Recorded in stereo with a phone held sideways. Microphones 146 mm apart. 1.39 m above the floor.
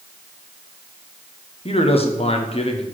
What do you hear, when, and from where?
1.6 s a man speaking: 40° left (ahead or behind), 1.1 m